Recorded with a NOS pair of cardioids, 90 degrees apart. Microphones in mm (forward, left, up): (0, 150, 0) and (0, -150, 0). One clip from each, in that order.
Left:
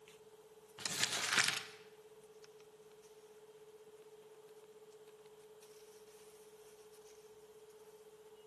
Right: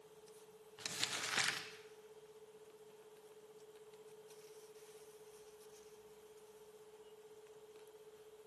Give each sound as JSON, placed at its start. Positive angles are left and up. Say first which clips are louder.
{"t": 0.8, "sound": "crumpling", "louder": "left 4 dB", "azimuth_deg": 25, "distance_m": 1.1}